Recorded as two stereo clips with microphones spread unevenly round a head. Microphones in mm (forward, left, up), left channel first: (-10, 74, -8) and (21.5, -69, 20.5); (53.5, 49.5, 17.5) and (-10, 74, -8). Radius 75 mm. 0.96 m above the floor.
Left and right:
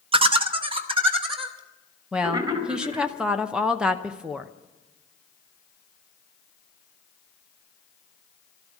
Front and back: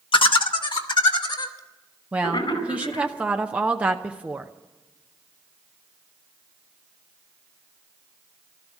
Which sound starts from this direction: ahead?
Laughter, at 0.1 s.